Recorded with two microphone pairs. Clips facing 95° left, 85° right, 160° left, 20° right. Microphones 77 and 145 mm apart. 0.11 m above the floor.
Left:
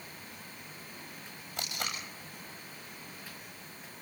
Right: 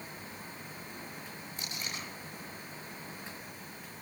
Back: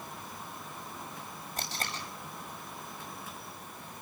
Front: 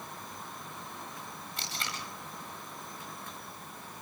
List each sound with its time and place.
1.6 s tape being pulled: 115° left, 8.5 m